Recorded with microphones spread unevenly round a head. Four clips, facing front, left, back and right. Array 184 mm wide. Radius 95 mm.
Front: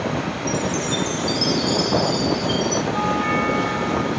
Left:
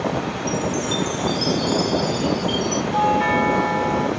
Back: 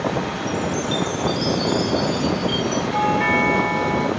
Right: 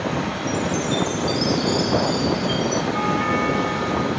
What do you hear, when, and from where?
0.5 s a chime: 50° left, 5.5 m
2.9 s a doorbell: 130° left, 2.5 m